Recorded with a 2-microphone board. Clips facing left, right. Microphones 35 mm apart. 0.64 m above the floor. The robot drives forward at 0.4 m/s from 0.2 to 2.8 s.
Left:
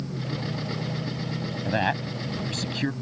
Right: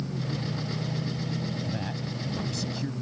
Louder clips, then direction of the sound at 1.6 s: Left 8 dB; 60° left (ahead or behind).